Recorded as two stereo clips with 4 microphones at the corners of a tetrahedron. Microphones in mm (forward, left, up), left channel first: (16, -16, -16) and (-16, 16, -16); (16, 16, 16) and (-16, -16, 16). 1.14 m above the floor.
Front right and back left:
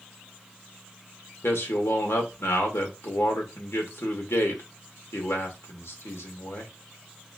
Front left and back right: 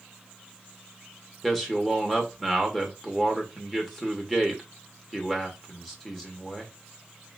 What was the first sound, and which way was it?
A man speaking, 35° right.